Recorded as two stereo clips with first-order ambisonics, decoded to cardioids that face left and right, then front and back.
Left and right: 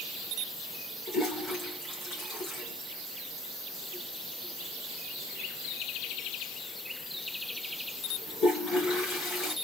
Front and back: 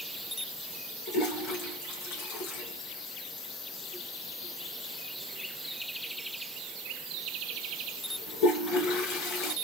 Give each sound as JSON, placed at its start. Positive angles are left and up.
{"t": 1.1, "sound": "a toilet flushing", "azimuth_deg": 25, "distance_m": 2.5}